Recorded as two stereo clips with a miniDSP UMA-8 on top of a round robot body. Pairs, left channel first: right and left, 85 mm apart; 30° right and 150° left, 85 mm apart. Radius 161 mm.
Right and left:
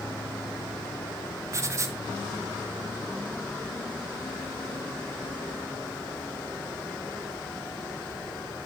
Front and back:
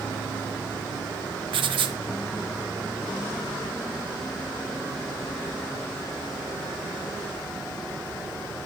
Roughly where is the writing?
Behind left.